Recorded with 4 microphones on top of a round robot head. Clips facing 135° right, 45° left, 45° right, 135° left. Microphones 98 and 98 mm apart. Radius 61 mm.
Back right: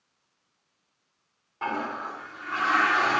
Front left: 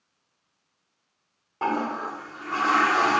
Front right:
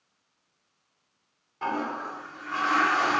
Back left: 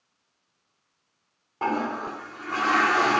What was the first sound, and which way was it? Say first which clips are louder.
A toilet flushing: front left 4 dB, back left 3 dB; 95° left.